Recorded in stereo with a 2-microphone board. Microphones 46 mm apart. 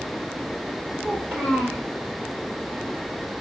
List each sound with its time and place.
1.0 s a child speaking: 35° right (ahead or behind), 2 m